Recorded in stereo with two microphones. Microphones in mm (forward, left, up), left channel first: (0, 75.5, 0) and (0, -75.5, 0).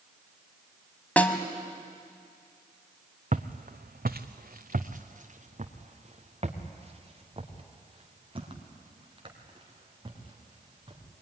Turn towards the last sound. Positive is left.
turn(degrees=-30)  # may be behind; listen again after turning